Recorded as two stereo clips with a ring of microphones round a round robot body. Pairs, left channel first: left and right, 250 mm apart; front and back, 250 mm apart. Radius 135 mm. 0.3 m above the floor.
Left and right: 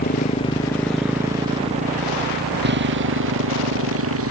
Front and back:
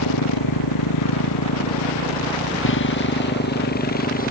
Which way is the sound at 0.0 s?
35° left.